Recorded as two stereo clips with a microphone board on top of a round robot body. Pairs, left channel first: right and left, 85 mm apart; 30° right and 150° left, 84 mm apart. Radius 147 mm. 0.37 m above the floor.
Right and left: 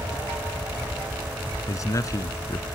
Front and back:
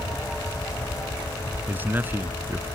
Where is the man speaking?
140° right.